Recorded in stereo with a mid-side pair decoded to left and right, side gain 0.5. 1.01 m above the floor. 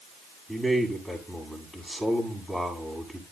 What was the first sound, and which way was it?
A man speaking, 5° right.